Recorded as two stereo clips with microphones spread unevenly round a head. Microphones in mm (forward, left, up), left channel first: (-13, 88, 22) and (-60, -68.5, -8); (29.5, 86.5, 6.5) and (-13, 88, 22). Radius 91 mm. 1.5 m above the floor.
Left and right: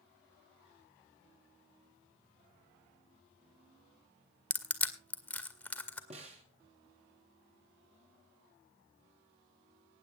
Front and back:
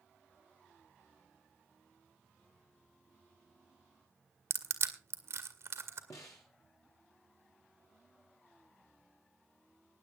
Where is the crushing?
155° left, 2 m.